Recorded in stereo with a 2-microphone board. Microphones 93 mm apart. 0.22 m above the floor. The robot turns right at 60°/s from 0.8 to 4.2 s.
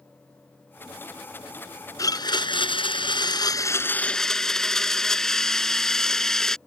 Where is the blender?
40° left; by 6.6 s 175° left.